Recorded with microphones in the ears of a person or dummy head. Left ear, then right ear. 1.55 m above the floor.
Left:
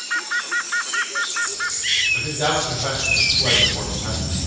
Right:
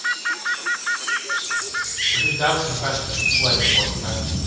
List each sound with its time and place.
2.1 s a man speaking: 90° right, 1.1 m; by 4.2 s 55° right (ahead or behind), 1.8 m